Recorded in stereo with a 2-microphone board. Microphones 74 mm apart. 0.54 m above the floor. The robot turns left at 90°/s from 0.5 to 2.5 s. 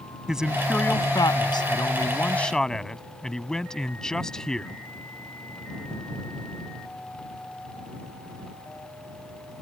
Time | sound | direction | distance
0.3 | a man speaking | 170° right | ?